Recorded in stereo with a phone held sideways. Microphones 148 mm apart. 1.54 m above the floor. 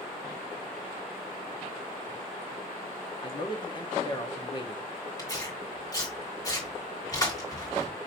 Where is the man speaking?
30° left (ahead or behind), 0.9 m.